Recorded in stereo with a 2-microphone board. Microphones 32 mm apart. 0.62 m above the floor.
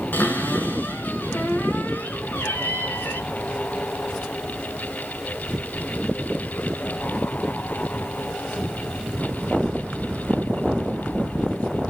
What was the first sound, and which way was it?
A cupboard door, 65° left (ahead or behind).